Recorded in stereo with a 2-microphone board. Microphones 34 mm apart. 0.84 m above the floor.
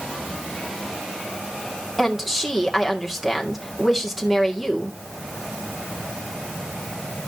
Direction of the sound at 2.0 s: 5° right (ahead or behind).